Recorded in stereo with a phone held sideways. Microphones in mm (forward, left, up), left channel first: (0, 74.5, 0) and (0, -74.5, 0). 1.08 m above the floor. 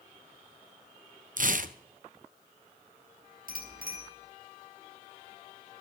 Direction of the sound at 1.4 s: 60° right (ahead or behind).